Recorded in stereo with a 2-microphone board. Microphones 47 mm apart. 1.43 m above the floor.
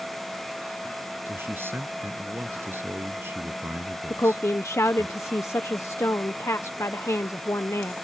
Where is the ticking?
I don't hear ticking.